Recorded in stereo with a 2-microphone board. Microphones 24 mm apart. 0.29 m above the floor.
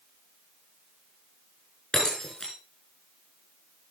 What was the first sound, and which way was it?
Breaking glass, 35° left (ahead or behind).